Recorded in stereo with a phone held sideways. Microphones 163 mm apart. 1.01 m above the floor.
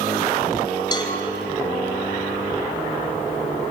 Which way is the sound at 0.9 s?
25° left (ahead or behind).